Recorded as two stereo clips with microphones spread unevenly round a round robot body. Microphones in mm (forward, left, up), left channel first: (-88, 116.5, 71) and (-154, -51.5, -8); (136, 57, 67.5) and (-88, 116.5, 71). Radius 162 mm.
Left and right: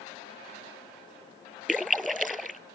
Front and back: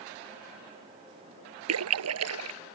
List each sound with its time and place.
1.7 s a splash: 160° left